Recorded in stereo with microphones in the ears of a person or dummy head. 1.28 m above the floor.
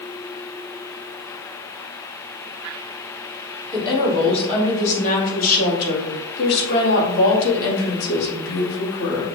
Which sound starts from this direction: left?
A woman speaking, at 3.7 s.